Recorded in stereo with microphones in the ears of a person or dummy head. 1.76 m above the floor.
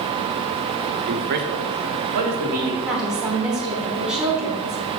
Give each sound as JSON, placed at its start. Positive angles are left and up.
{"t": 1.1, "sound": "a man speaking", "side_deg": -40, "distance_m": 0.5}
{"t": 2.9, "sound": "a woman speaking", "side_deg": -10, "distance_m": 1.2}